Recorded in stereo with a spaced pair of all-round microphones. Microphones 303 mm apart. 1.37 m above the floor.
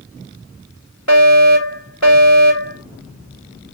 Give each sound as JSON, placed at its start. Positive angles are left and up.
{"t": 1.1, "sound": "a fire alarm", "side_deg": 60, "distance_m": 2.5}